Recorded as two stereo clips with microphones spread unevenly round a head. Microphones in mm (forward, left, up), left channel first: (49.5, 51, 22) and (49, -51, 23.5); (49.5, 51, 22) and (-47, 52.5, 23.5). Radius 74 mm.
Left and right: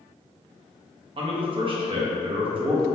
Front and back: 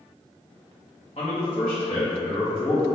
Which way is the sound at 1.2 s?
55° right.